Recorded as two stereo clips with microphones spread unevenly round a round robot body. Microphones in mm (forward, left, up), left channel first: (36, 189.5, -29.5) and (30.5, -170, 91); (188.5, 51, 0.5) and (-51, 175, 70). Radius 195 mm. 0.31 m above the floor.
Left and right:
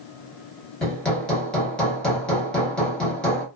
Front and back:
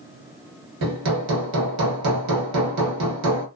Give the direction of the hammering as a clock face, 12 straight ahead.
7 o'clock.